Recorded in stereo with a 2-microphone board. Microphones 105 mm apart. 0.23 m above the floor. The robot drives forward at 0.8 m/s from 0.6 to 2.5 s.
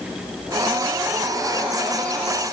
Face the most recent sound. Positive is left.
No sound to turn to.